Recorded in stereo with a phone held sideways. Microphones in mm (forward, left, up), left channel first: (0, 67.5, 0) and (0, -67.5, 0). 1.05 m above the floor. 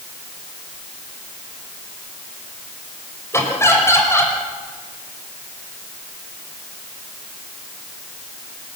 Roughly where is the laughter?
Centre.